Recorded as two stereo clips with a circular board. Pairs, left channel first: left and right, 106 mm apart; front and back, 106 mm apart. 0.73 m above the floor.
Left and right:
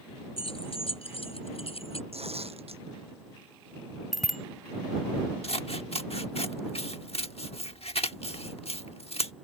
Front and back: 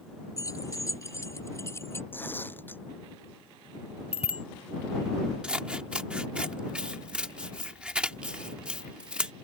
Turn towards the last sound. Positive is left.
turn(degrees=100)